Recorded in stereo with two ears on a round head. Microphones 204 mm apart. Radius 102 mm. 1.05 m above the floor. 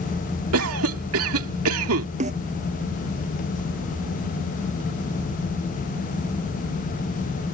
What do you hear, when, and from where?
0.5 s a cough: 70° right (ahead or behind)
2.2 s a snare drum: 30° right (ahead or behind)